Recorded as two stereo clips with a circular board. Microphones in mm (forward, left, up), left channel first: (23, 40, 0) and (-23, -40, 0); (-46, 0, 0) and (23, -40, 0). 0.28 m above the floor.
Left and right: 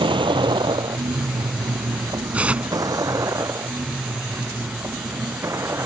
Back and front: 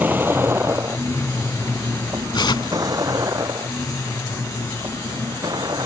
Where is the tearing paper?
165° left.